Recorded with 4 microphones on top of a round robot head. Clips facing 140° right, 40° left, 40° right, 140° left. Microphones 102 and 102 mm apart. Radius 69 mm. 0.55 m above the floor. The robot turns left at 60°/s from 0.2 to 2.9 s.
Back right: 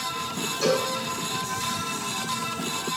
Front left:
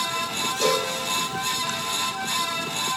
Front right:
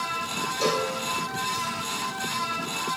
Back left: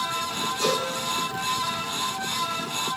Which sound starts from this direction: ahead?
A cowbell, at 0.6 s.